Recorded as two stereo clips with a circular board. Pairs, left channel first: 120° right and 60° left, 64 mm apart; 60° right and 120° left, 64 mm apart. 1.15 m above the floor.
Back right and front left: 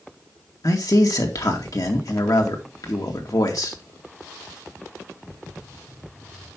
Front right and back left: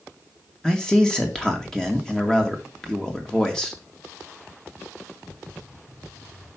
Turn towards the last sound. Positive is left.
turn(degrees=-140)